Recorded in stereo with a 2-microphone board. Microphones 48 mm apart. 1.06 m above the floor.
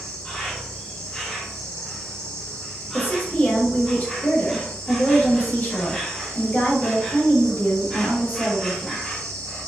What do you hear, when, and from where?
0.0 s an insect: 10° left (ahead or behind), 1.0 m
2.9 s a woman speaking: 40° left (ahead or behind), 1.3 m